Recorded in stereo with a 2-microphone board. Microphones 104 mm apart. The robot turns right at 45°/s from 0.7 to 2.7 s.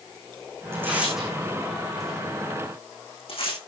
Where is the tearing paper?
25° right (ahead or behind), 7 m; by 3.6 s 65° left (ahead or behind), 7 m.